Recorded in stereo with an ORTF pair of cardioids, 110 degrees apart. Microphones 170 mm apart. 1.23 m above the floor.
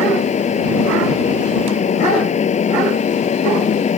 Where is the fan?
40° left.